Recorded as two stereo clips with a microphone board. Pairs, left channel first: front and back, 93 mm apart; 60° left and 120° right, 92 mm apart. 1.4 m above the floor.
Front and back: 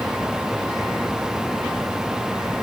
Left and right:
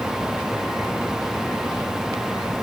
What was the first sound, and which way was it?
Only background noise.